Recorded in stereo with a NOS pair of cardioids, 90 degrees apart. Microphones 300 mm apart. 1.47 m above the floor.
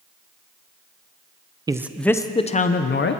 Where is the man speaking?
15° right, 0.7 m; by 3.2 s 40° left, 1.0 m.